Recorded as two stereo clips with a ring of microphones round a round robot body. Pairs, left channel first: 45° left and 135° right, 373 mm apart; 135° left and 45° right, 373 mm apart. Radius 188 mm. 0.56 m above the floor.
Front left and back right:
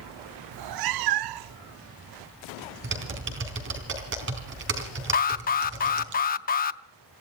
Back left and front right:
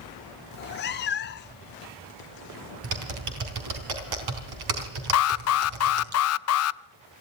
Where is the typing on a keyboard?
75° right, 3.5 m.